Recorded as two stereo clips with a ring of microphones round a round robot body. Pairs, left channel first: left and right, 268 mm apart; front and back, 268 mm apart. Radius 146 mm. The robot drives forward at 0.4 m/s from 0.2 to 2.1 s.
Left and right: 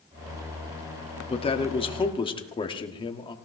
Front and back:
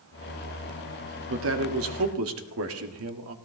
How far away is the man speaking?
About 1.5 m.